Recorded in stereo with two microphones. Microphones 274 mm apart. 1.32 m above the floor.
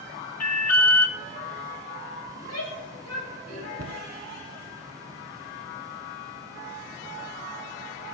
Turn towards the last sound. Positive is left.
turn(degrees=-60)  # may be behind; listen again after turning